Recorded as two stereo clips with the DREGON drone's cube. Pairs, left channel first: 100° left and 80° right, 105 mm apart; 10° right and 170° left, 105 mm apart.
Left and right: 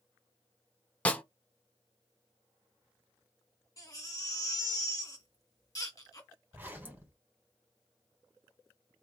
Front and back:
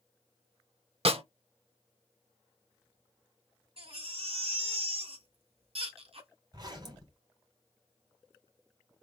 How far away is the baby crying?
About 2 m.